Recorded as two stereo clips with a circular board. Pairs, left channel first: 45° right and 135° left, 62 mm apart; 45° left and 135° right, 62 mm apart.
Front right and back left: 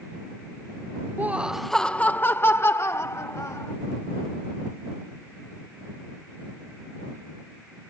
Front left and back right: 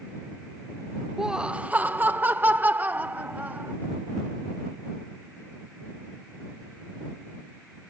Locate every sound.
1.2 s laughter: 150° left; by 3.7 s 75° right